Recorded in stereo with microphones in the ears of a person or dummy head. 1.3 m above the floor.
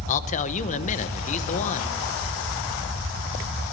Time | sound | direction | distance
0.1 | a man speaking | 40° left (ahead or behind) | 1.1 m